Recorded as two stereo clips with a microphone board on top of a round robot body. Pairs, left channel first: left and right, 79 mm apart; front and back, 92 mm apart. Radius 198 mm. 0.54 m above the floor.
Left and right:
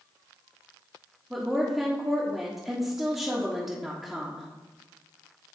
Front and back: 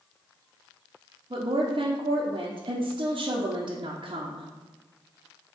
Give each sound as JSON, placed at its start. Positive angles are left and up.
{"t": 1.3, "sound": "a woman speaking", "azimuth_deg": -175, "distance_m": 1.3}